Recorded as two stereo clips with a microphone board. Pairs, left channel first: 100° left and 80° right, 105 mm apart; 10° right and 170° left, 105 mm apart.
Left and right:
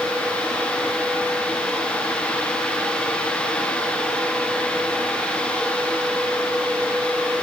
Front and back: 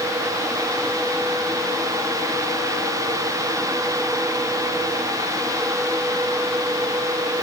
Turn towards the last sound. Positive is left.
No sound to turn to.